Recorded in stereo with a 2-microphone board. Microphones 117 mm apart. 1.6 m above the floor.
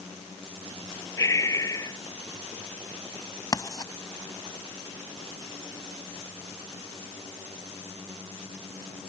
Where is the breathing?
25° left (ahead or behind).